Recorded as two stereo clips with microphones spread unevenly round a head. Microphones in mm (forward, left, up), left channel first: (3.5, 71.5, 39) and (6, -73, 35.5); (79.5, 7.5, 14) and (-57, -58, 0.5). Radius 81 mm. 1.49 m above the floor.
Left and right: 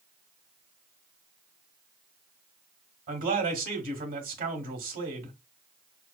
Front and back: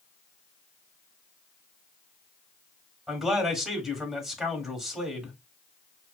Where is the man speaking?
70° right, 1.3 m.